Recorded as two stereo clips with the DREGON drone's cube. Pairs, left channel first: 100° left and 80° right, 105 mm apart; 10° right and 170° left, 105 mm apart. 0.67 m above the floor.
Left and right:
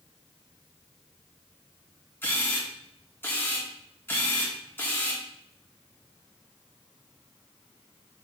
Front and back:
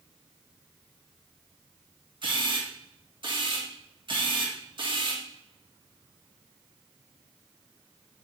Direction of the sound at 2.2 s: 165° left.